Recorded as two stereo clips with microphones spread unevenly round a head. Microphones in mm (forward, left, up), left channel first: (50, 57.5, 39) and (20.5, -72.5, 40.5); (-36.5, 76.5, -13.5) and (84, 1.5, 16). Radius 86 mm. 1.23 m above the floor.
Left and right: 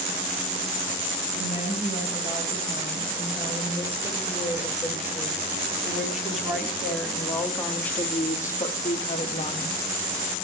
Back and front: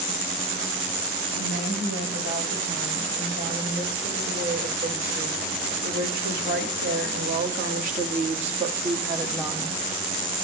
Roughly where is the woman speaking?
Ahead right.